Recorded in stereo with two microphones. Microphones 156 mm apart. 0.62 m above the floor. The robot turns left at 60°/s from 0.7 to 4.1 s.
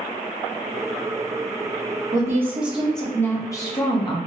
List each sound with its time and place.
2.1 s a woman speaking: 135° right, 0.9 m; by 4.2 s 105° left, 0.9 m